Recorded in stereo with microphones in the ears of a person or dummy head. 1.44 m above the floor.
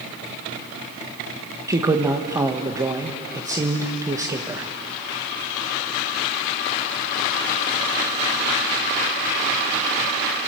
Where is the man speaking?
20° right (ahead or behind), 1.1 m.